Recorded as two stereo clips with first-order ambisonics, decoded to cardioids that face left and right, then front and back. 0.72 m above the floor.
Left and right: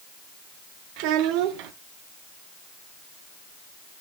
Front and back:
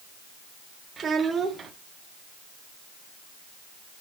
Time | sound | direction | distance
1.0 | a child speaking | 110° right | 0.9 m